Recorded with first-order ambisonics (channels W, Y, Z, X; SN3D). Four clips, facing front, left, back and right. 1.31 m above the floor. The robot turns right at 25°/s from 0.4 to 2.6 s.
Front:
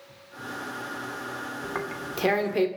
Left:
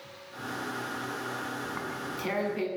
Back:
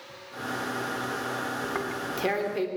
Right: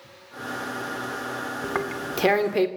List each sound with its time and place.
1.6 s tearing paper: 95° right, 2.5 m; by 2.7 s 70° right, 2.5 m